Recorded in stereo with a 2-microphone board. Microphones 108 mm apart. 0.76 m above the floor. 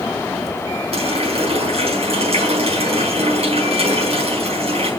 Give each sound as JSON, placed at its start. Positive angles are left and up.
{"t": 0.9, "sound": "a running tap", "side_deg": -70, "distance_m": 4.5}